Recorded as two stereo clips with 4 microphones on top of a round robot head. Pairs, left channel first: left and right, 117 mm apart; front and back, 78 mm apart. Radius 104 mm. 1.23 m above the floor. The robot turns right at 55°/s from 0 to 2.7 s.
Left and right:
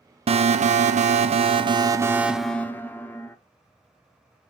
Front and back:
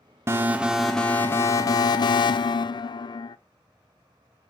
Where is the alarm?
120° right, 0.7 m; by 3.4 s 15° left, 0.7 m.